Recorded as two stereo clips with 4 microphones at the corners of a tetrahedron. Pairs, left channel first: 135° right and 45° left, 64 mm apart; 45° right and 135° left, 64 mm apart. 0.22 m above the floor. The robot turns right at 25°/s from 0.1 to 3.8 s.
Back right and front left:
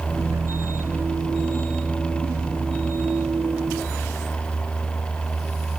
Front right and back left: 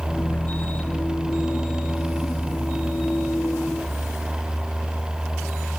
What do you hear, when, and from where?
Only background noise.